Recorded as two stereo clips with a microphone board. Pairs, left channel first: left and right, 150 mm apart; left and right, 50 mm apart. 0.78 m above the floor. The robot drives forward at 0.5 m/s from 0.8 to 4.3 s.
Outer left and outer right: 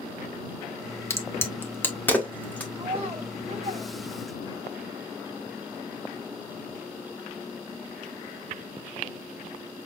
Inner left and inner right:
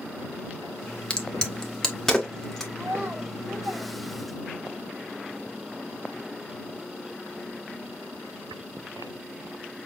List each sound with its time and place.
1.1 s a crack: 20° left (ahead or behind), 1.0 m; by 2.6 s 10° left (ahead or behind), 1.7 m
2.8 s a child speaking: 40° right (ahead or behind), 2.5 m; by 4.8 s 55° right (ahead or behind), 2 m